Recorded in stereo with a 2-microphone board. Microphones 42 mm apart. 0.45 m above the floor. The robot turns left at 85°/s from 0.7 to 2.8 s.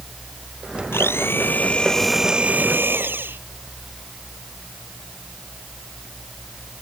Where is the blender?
100° left; by 3.4 s 60° right.